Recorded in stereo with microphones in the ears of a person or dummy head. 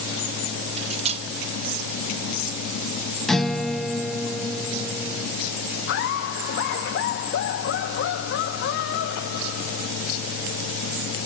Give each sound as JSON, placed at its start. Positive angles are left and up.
{"t": 0.8, "sound": "cutlery clinking", "side_deg": -35, "distance_m": 0.7}
{"t": 3.3, "sound": "a guitar", "side_deg": 0, "distance_m": 0.8}
{"t": 5.9, "sound": "laughter", "side_deg": 60, "distance_m": 0.5}